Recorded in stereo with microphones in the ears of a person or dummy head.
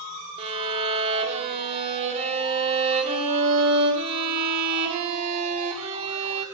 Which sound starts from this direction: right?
A violin, at 0.4 s.